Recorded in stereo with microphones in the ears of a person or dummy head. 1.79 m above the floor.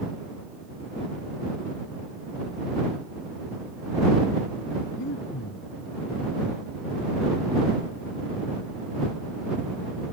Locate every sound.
5.0 s breathing: 60° left (ahead or behind)